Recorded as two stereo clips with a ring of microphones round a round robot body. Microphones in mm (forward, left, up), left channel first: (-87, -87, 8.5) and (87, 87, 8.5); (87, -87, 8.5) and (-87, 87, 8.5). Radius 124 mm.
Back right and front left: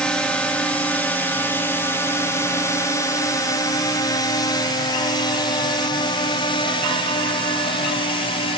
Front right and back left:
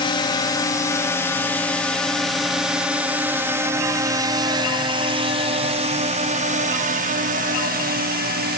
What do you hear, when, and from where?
0.0 s a drone: 55° right; by 8.6 s 165° left